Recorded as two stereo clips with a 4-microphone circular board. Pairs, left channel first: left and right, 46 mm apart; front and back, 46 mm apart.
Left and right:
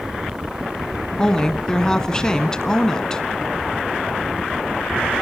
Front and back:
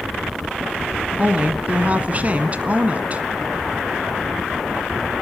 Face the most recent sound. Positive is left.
turn(degrees=155)